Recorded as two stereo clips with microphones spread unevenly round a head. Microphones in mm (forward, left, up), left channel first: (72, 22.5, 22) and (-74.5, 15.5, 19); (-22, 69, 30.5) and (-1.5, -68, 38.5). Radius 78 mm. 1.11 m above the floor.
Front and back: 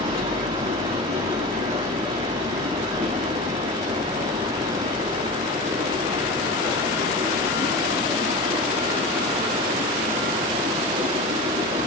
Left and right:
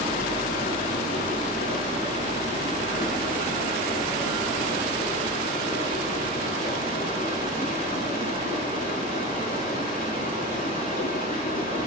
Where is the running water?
130° left, 5.5 m.